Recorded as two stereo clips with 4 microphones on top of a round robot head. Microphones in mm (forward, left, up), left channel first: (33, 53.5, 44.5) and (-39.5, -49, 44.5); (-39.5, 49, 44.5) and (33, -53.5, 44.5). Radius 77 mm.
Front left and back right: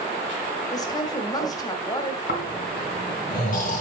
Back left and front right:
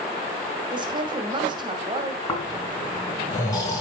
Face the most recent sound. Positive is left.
turn(degrees=60)